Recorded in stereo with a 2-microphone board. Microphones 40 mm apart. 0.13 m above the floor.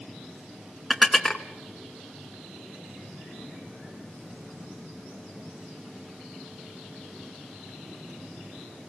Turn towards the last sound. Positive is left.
turn(degrees=0)  # may be behind; listen again after turning